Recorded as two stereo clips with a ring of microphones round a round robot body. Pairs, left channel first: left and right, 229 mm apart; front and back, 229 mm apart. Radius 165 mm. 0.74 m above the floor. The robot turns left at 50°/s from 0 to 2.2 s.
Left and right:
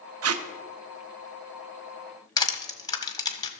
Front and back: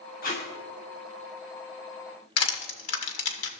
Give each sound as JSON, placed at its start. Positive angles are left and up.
{"t": 0.2, "sound": "tape being pulled", "azimuth_deg": -65, "distance_m": 0.7}
{"t": 2.4, "sound": "crushing", "azimuth_deg": 15, "distance_m": 1.7}